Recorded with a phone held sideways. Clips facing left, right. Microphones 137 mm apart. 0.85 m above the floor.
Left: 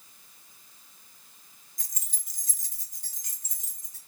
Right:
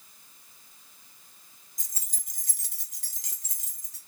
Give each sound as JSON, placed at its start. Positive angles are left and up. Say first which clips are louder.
{"t": 1.8, "sound": "keys jangling", "louder": "even", "side_deg": -20, "distance_m": 0.5}